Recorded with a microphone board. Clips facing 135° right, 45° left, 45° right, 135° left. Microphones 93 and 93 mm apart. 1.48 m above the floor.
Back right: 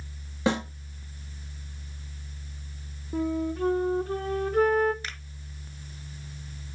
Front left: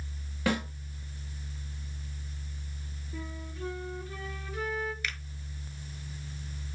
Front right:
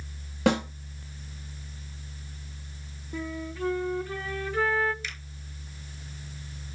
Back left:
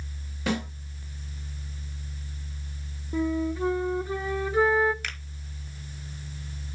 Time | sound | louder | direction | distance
0.5 | a snare drum | back right 4 dB, front right 5 dB | 70° right | 2 m
3.1 | a flute | back right 15 dB, back left 8 dB | 155° right | 0.7 m
5.0 | a finger snap | front left 2 dB, back left 2 dB | 165° left | 1.4 m